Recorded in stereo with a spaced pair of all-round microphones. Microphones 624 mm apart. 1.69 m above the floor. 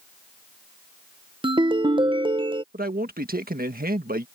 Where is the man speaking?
15° right (ahead or behind).